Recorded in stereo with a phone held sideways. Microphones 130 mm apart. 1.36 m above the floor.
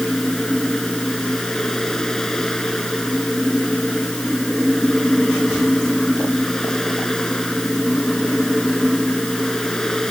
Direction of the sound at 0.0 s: 5° left (ahead or behind).